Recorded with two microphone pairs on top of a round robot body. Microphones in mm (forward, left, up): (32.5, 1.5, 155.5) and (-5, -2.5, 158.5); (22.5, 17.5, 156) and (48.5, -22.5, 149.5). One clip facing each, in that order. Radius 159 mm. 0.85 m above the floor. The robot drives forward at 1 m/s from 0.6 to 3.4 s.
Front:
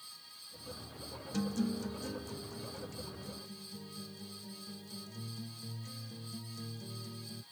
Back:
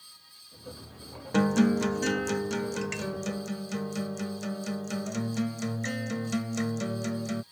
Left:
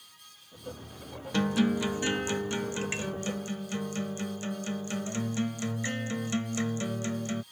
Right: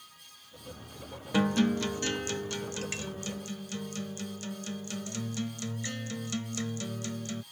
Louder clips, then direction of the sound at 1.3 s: Back 12 dB, even; 140° right.